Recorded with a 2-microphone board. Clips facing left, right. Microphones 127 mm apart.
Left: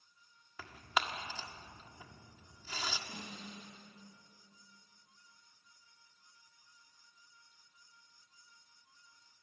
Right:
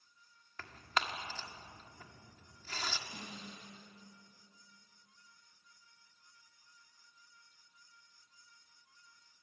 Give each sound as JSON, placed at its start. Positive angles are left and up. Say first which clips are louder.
{"t": 0.6, "sound": "tearing paper", "louder": "left 1 dB", "side_deg": 10, "distance_m": 1.5}
{"t": 3.1, "sound": "a snare drum", "louder": "left 1 dB", "side_deg": 50, "distance_m": 9.0}